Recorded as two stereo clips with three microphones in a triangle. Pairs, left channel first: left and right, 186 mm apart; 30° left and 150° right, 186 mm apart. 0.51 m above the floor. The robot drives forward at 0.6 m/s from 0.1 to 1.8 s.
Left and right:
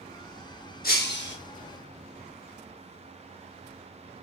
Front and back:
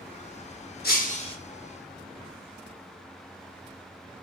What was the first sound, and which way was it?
Breaking glass, 60° left.